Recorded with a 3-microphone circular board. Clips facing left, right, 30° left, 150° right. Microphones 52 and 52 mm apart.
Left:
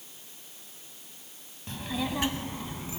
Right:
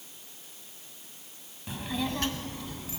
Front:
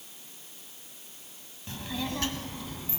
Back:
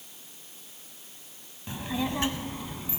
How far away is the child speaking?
About 0.7 m.